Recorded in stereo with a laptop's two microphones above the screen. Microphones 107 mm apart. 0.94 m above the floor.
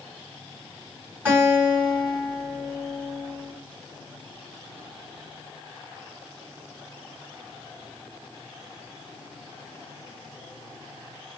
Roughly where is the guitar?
Right.